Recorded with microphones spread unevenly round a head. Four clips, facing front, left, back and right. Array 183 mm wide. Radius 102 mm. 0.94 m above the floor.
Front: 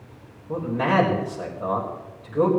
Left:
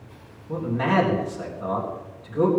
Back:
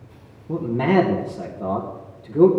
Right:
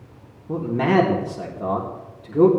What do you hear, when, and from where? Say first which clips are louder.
0.5 s a man speaking: right 3 dB, back 3 dB; 150° right, 3.5 m